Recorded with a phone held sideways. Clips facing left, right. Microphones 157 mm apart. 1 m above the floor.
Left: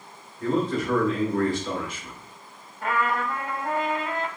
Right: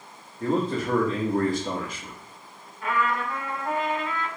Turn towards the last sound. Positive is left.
turn(degrees=45)  # may be behind; listen again after turning